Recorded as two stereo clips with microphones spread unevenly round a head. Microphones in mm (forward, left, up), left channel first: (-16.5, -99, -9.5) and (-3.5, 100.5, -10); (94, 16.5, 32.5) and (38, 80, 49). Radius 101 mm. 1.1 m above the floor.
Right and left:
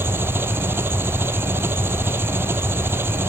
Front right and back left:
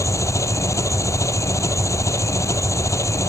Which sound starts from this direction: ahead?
An engine running, at 0.0 s.